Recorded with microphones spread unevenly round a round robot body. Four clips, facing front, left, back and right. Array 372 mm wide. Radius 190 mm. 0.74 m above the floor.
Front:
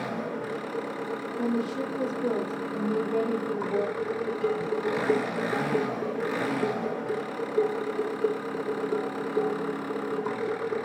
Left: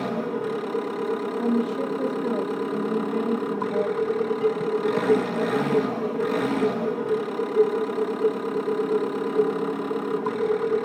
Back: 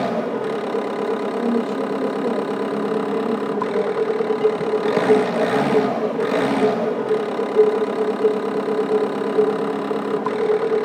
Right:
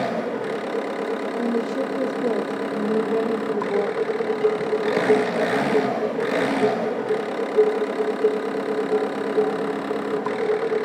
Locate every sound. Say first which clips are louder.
0.0 s an engine running: right 2 dB, back 10 dB; 170° right, 1.0 m
1.4 s a woman speaking: even, back 4 dB; 105° right, 2.5 m
4.0 s dishes clattering: right 2 dB, back 10 dB; 165° right, 6.5 m